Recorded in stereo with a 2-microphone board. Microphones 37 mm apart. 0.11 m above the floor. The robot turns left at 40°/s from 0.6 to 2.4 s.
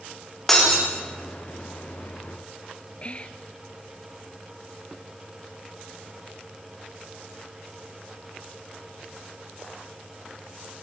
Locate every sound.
0.5 s breaking glass: 5° left (ahead or behind), 10 m; by 0.9 s 5° right (ahead or behind), 10 m
3.0 s whispering: 35° left (ahead or behind), 1.4 m